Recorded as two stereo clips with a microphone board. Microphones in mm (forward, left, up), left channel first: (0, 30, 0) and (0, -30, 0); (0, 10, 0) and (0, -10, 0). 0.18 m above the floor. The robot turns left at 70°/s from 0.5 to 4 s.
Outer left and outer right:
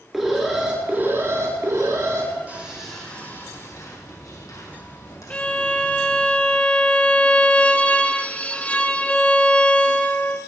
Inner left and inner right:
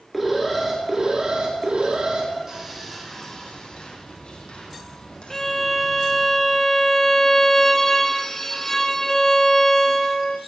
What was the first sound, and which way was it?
An alarm, straight ahead.